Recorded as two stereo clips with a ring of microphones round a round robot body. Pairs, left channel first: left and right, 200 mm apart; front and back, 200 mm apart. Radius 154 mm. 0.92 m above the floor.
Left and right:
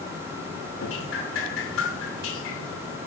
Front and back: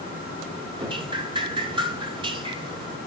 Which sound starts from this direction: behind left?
Dripping, at 0.8 s.